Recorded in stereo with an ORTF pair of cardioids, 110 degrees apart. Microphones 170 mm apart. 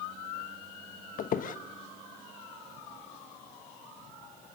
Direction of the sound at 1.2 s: 55° left.